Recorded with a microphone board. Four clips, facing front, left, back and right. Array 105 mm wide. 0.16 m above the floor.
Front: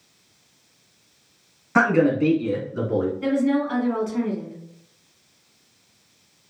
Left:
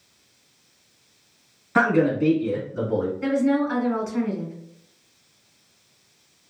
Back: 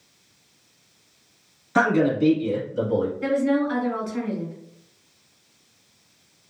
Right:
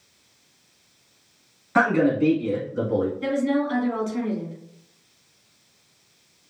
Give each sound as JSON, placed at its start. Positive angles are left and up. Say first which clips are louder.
{"t": 1.8, "sound": "a man speaking", "louder": "even, front 1 dB", "azimuth_deg": -5, "distance_m": 1.2}
{"t": 3.2, "sound": "a woman speaking", "louder": "left 2 dB, even", "azimuth_deg": 90, "distance_m": 1.7}